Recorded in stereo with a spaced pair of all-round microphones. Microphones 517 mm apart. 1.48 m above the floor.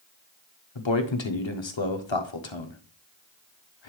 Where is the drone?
No drone in this recording.